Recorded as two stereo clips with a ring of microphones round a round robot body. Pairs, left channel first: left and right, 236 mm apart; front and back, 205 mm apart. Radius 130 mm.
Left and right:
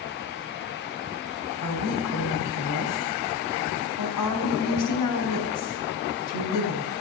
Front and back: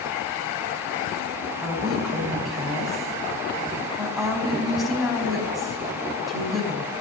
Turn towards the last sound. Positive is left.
turn(degrees=90)